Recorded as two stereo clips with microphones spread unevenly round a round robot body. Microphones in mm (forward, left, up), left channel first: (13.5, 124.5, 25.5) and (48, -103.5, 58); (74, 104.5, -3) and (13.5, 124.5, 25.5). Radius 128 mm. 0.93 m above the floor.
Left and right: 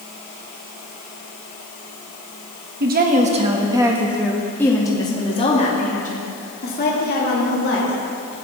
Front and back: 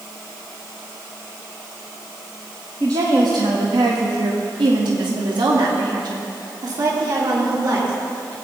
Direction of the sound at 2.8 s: 130° right.